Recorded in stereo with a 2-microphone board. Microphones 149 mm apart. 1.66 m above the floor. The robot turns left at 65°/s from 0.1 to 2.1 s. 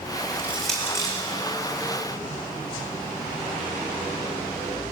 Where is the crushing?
20° right (ahead or behind), 8.5 m; by 1.1 s 30° left (ahead or behind), 8.5 m.